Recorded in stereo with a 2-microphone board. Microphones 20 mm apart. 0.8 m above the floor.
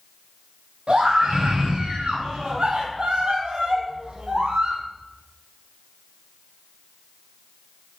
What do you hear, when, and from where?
0.9 s a scream: 70° right (ahead or behind), 5 m; by 4.8 s 50° right (ahead or behind), 2.5 m